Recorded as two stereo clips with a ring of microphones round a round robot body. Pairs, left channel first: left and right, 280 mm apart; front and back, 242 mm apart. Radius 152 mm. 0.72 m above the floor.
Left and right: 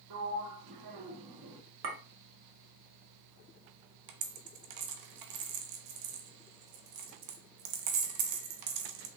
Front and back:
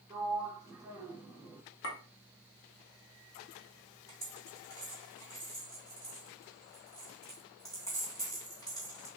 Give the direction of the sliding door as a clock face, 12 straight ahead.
3 o'clock.